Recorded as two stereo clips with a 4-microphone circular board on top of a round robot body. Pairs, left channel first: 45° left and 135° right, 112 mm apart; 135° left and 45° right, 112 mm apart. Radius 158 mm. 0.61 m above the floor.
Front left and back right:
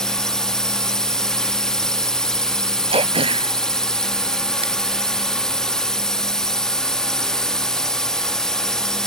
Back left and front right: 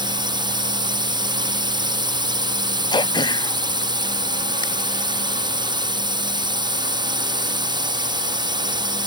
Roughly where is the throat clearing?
Behind.